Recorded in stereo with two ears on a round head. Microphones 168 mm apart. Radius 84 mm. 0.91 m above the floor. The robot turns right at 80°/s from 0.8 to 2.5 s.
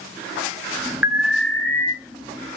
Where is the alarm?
10° right (ahead or behind), 0.8 m; by 1.9 s 20° left (ahead or behind), 0.8 m.